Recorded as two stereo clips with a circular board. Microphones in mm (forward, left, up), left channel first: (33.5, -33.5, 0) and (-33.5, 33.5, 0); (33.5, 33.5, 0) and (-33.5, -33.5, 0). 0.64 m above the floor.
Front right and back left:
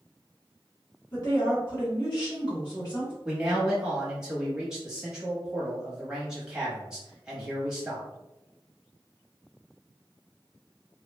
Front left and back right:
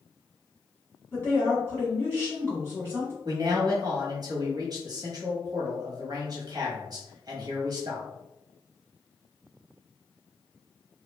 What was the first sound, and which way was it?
A woman speaking, 15° right.